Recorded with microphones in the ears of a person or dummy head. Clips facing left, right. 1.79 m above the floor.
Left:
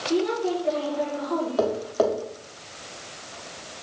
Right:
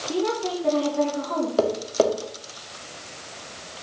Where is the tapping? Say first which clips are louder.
Right 3 dB; 35° right (ahead or behind), 1.5 m.